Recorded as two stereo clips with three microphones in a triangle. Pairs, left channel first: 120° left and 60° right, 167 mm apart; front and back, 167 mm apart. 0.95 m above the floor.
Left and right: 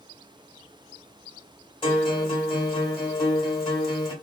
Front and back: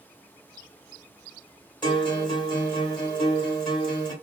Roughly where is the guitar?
Ahead left.